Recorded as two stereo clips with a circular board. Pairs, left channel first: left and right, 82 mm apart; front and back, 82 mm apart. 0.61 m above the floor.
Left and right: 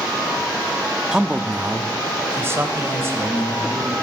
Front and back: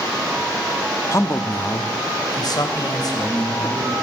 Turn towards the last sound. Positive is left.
turn(degrees=-35)